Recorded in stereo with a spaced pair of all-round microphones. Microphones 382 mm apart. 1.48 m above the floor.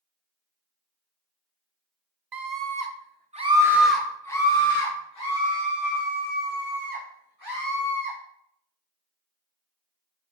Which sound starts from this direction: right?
A scream, at 2.3 s.